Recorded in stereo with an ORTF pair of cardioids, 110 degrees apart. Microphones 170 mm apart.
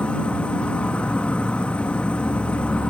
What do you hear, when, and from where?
0.0 s an insect: 5° left